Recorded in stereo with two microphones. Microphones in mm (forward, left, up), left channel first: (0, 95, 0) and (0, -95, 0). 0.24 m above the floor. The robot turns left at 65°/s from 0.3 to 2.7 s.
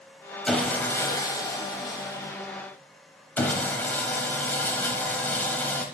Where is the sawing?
Centre (ahead or behind), 0.8 m; by 5.8 s 10° left (ahead or behind), 0.8 m.